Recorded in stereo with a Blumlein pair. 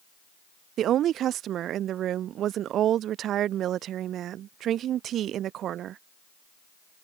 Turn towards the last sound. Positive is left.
turn(degrees=-30)